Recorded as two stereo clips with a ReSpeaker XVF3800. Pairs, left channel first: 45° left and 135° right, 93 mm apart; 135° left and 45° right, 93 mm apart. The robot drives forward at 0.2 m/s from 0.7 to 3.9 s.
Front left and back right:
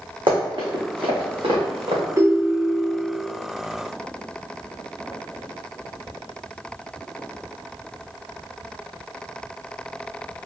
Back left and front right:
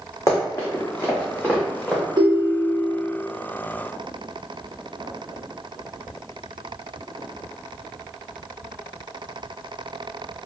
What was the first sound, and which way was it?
Running footsteps, 170° right.